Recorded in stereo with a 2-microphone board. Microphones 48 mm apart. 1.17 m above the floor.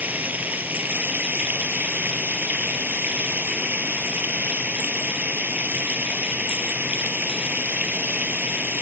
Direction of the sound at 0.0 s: 35° right (ahead or behind).